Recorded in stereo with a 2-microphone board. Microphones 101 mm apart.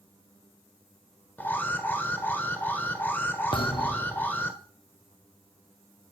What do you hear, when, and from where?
1.4 s an alarm: 20° left (ahead or behind), 1.5 m
3.5 s a thud: 50° left (ahead or behind), 1.0 m